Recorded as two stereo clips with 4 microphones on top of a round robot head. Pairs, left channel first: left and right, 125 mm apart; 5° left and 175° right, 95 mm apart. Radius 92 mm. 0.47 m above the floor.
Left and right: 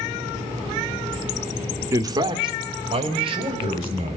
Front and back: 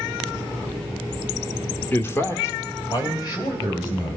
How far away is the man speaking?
About 0.8 m.